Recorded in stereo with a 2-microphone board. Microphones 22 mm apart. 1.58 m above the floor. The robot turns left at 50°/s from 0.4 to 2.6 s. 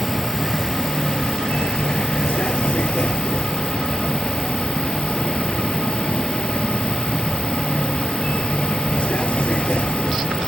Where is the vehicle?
170° left; by 10.5 s 60° left.